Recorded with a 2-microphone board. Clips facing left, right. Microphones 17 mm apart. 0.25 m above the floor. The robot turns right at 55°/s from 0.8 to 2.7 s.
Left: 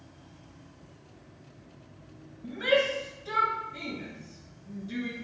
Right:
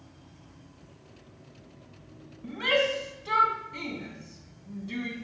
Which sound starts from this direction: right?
A shout, at 2.4 s.